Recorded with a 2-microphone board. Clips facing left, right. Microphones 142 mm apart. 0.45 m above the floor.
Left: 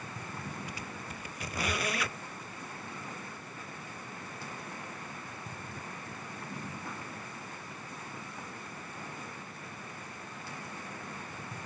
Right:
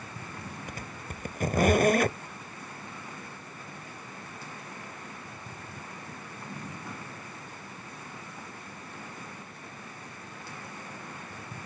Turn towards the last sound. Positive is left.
turn(degrees=-45)  # may be behind; listen again after turning